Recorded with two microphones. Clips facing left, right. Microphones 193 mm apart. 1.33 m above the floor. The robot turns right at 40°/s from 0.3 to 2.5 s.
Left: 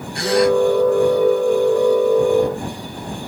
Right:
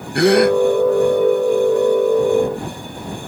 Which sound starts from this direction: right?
A gasp, at 0.1 s.